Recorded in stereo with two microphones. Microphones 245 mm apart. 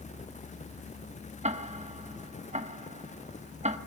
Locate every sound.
1.4 s ticking: 25° right (ahead or behind), 1.3 m